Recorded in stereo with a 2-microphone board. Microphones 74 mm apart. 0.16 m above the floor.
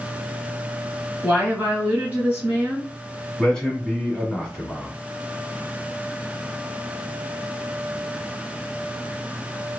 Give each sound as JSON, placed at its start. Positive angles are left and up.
{"t": 1.2, "sound": "a woman speaking", "side_deg": -20, "distance_m": 1.7}
{"t": 3.4, "sound": "a man speaking", "side_deg": 10, "distance_m": 1.2}